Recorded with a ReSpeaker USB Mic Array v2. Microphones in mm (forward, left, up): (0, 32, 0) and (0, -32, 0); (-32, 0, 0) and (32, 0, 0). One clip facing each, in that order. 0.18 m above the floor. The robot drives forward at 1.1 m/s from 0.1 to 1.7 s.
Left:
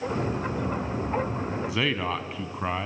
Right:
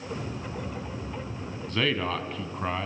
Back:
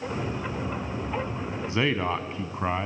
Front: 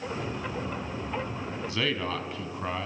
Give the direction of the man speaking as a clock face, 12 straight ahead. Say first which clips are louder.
Right 2 dB, back 5 dB; 7 o'clock.